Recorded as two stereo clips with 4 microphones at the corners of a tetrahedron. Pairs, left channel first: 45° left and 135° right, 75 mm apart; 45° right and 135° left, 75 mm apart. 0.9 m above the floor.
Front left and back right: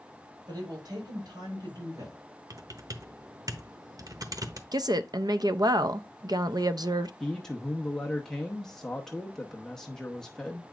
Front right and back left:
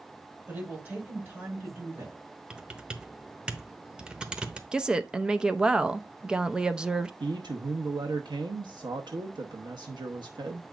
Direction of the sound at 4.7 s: 145° right.